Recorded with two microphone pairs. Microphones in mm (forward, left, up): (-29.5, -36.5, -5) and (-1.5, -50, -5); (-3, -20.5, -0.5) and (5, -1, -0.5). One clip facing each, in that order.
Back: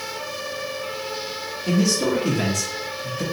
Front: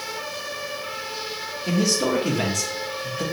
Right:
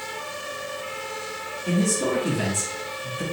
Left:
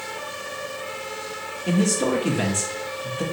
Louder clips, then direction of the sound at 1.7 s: Back 1 dB, left 2 dB; 50° left.